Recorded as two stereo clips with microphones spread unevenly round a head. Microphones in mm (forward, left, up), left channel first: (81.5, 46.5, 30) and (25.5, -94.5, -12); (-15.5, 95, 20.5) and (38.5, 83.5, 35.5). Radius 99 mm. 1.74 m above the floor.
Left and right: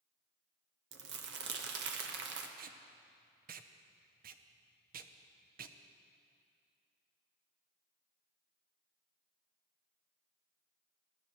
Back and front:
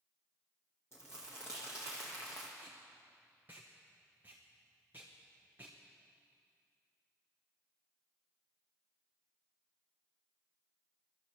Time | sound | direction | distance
0.9 | crumpling | 120° right | 1.0 m
2.6 | tape being pulled | 80° right | 0.6 m